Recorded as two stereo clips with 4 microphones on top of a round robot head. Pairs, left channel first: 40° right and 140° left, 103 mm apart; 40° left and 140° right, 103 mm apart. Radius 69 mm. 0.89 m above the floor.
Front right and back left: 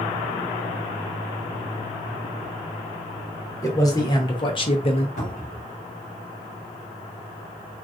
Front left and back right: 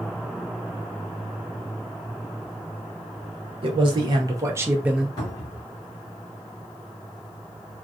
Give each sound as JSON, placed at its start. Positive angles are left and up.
{"t": 3.6, "sound": "a man speaking", "azimuth_deg": -100, "distance_m": 1.1}
{"t": 5.2, "sound": "a cupboard door", "azimuth_deg": -20, "distance_m": 1.1}